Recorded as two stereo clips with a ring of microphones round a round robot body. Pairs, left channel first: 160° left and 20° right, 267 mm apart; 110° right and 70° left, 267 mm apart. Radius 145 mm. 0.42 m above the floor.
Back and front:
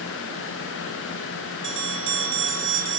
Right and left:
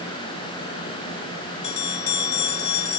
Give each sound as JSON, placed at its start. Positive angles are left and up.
{"t": 1.6, "sound": "a bell", "azimuth_deg": -65, "distance_m": 2.5}